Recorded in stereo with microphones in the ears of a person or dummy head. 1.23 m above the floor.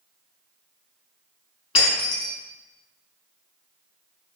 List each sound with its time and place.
1.8 s breaking glass: 30° left (ahead or behind), 4.5 m